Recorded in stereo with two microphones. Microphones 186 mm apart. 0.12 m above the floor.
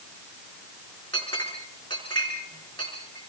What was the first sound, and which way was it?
A clink, 25° left (ahead or behind).